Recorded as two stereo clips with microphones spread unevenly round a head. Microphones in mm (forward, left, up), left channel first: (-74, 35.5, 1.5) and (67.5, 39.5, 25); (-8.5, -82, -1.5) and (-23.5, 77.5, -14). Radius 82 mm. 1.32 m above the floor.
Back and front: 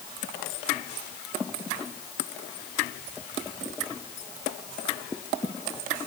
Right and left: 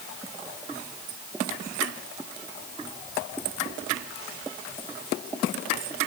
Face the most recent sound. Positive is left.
No sound to turn to.